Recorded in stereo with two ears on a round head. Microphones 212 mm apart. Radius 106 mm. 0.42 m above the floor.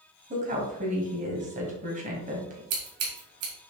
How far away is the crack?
No crack in this recording.